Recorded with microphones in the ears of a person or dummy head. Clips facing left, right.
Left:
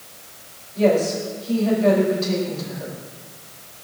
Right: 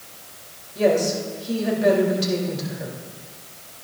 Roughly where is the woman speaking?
Right.